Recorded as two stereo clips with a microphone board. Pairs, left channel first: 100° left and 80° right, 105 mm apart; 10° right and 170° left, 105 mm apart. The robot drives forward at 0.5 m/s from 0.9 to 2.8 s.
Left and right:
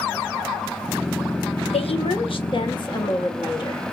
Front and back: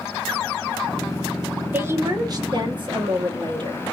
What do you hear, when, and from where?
1.7 s a woman speaking: 100° left, 0.7 m; by 3.8 s 135° left, 1.0 m